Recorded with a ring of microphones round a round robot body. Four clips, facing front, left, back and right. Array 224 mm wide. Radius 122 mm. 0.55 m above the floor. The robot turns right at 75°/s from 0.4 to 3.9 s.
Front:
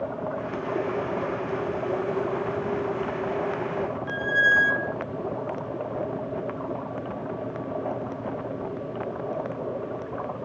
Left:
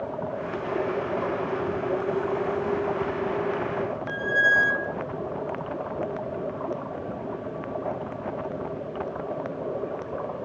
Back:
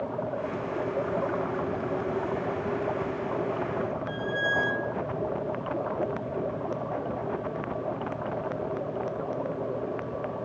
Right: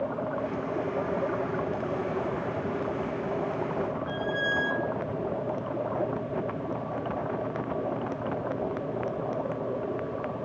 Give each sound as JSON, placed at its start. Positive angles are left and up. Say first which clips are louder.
{"t": 4.1, "sound": "a squeak", "louder": "left 5 dB, front 5 dB", "azimuth_deg": 45, "distance_m": 2.5}